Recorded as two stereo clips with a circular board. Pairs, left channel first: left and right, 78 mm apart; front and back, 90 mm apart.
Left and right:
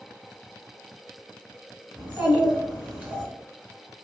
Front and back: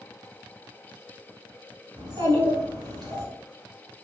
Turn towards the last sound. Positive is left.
turn(degrees=-160)